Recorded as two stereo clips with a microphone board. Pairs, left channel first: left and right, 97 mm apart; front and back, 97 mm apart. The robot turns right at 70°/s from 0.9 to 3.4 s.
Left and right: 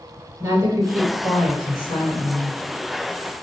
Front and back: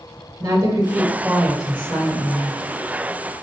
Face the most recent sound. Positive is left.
turn(degrees=30)